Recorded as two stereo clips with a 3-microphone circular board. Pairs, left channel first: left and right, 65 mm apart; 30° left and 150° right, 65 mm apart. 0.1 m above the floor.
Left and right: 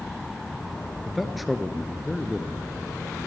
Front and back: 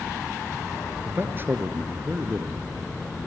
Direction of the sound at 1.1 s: Straight behind.